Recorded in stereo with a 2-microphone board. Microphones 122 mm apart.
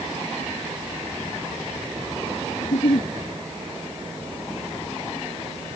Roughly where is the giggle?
Left.